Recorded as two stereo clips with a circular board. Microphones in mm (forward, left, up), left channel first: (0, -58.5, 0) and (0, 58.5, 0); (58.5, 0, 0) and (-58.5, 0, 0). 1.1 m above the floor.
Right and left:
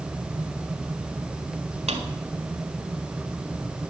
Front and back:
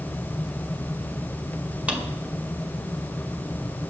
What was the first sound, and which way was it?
A drawer, 100° left.